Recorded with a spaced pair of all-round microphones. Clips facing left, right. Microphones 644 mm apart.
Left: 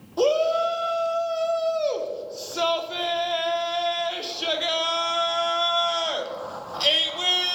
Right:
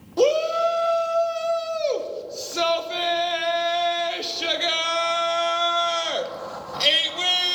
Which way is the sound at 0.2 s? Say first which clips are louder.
Right 2 dB; 55° right (ahead or behind).